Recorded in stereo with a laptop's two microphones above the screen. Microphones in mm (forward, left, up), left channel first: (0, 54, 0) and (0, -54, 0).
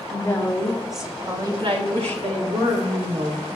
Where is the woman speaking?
25° left (ahead or behind), 2 m; by 3.5 s 75° right (ahead or behind), 3 m.